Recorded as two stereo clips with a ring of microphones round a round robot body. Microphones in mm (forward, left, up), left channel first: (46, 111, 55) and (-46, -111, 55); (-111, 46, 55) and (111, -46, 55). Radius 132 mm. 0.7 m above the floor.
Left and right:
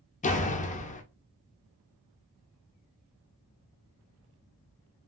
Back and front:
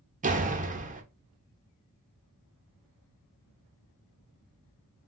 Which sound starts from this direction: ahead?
A door slam, at 0.2 s.